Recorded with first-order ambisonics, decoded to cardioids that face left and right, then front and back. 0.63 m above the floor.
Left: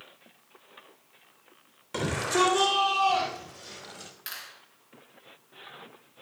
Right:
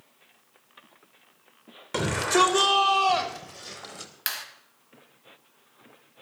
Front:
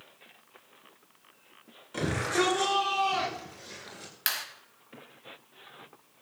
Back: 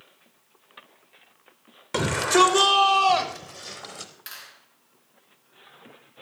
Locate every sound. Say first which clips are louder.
1.9 s a shout: right 4 dB, back 9 dB; 160° right, 3 m; by 4.1 s 155° right, 4.5 m
4.3 s a clap: right 8 dB, front 12 dB; 45° right, 2.5 m